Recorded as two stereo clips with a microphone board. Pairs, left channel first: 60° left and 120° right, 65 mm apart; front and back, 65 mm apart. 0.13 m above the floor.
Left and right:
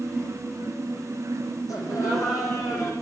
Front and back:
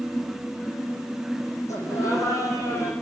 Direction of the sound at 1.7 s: 35° left.